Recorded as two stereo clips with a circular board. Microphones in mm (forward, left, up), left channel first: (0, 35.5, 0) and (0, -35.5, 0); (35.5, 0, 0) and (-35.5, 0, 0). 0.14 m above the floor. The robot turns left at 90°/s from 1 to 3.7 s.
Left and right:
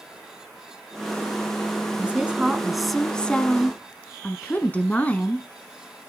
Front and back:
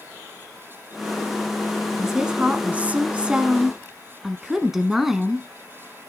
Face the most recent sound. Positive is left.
turn(degrees=105)